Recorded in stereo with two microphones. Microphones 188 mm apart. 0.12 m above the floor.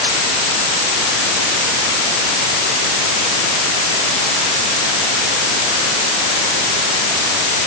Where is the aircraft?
No aircraft in this recording.